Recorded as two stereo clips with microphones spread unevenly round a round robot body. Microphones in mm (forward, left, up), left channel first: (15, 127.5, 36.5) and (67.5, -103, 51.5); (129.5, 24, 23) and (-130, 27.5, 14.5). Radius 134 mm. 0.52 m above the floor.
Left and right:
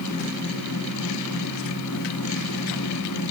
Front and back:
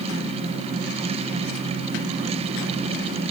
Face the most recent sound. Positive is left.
No sound to turn to.